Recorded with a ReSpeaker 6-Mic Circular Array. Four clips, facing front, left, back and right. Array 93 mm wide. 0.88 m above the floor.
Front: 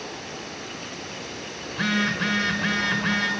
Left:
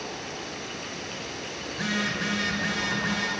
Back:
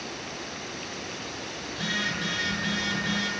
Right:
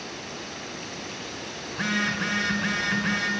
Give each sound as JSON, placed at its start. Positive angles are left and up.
{"t": 1.7, "sound": "a phone buzzing", "azimuth_deg": -25, "distance_m": 1.5}